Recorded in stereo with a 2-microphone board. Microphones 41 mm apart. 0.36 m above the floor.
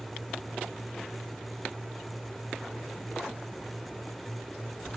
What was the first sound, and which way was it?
Only background noise.